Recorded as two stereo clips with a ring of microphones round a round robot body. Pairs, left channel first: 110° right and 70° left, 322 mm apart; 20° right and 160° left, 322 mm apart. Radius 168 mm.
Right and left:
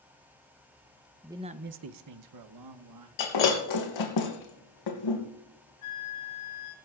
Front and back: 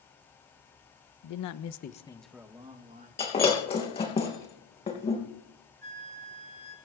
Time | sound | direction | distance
1.2 | a man speaking | 15° right | 0.8 m
3.2 | breaking glass | 95° right | 3 m
5.8 | a flute | 145° right | 9.5 m